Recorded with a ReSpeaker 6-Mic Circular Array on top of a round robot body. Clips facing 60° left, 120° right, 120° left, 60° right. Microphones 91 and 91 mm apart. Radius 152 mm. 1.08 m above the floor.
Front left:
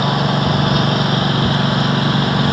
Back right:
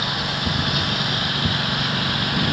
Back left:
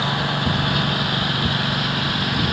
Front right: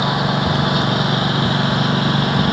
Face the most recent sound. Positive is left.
turn(degrees=0)